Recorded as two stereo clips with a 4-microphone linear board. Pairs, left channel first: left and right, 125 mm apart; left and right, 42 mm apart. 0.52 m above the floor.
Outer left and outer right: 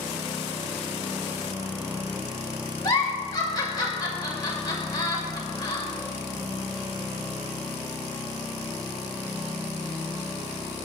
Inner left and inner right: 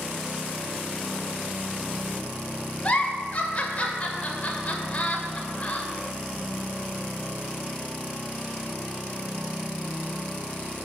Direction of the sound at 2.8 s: 35° left (ahead or behind).